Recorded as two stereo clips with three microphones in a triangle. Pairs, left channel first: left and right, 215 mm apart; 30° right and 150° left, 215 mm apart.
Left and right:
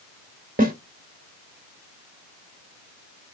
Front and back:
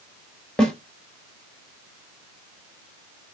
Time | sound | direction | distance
0.6 | a snare drum | 115° right | 1.2 m